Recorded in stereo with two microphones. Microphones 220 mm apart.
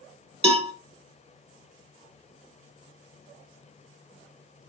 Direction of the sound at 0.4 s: 30° right (ahead or behind).